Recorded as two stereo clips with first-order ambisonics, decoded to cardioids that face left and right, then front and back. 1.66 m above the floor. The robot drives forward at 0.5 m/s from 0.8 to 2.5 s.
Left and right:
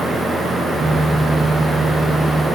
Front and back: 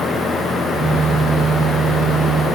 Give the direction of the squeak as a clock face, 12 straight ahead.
No squeak in this recording.